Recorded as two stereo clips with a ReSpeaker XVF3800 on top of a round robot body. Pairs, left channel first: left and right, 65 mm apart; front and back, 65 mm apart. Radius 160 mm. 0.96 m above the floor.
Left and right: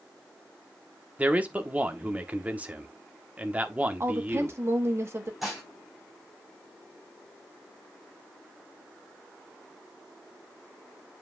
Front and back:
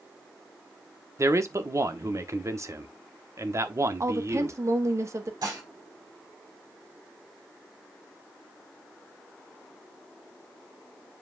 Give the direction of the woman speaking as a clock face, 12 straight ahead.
5 o'clock.